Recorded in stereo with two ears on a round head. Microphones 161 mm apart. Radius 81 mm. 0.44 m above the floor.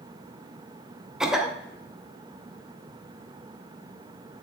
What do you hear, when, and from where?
1.2 s a cough: 5° right (ahead or behind), 0.8 m